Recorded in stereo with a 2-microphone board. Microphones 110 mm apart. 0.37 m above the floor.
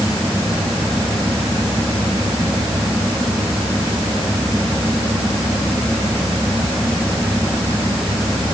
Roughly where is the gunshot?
No gunshot in this recording.